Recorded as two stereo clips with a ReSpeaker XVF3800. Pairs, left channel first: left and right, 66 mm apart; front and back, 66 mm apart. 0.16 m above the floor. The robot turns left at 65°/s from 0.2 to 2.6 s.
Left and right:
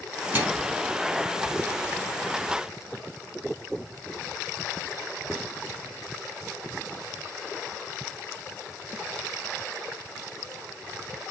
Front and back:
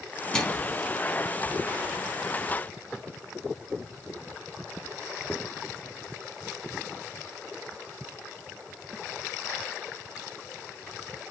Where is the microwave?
60° right, 0.9 m; by 0.8 s 90° right, 0.9 m.